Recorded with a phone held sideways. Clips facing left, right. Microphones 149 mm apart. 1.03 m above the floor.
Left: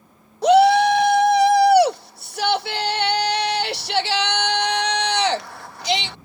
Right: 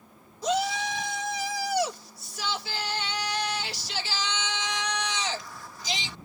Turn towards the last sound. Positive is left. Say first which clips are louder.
# left 15 dB
turn(degrees=60)  # may be behind; listen again after turning